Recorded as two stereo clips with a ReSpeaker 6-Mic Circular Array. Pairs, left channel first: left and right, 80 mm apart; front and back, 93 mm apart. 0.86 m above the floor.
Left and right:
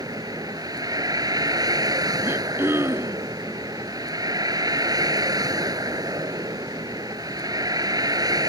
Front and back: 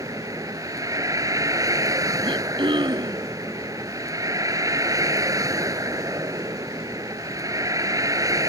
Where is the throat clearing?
150° right.